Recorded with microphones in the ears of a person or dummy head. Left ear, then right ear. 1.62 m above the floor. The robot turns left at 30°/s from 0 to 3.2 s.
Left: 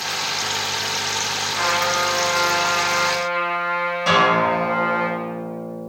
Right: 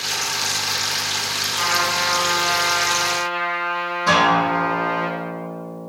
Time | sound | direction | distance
1.5 | a trumpet | 140° left | 1.7 m
4.1 | a guitar | 55° left (ahead or behind) | 1.6 m